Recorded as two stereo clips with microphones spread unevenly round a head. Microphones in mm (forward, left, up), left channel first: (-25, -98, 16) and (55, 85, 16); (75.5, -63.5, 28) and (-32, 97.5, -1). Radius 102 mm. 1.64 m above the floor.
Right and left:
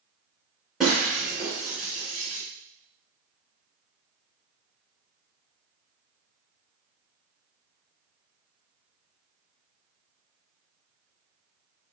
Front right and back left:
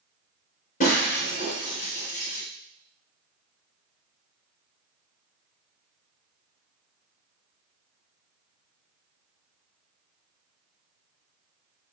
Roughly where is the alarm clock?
No alarm clock in this recording.